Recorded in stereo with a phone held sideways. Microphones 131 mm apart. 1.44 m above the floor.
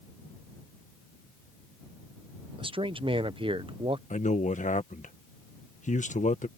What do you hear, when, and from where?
2.6 s a man speaking: 40° right (ahead or behind)
4.1 s a man speaking: 65° left (ahead or behind)